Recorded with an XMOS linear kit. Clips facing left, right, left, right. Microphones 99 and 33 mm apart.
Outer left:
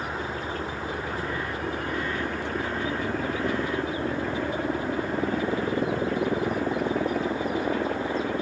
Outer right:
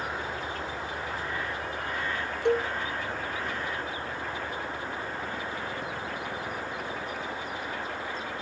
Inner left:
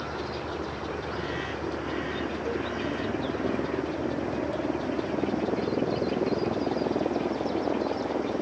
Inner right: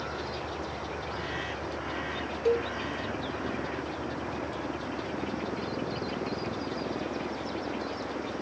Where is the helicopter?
35° left (ahead or behind); by 8.4 s 80° left.